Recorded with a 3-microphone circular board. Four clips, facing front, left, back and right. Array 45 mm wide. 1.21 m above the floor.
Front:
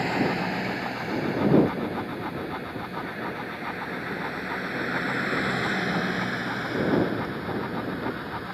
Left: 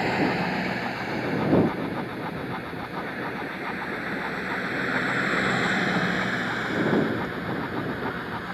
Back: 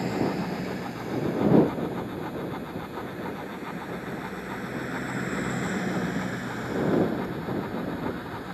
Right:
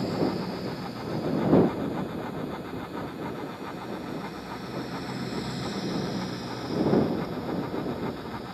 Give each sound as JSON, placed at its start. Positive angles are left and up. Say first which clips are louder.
{"t": 0.0, "sound": "a vehicle", "louder": "left 4 dB, front 2 dB", "azimuth_deg": 60}